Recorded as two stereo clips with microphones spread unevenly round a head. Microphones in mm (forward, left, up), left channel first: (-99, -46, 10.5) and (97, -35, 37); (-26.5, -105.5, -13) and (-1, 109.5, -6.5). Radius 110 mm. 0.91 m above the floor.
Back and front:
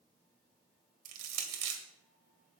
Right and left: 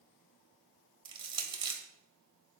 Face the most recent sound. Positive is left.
turn(degrees=15)